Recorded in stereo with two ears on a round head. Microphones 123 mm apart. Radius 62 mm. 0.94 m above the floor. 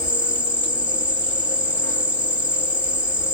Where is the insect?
15° left (ahead or behind), 1.4 m.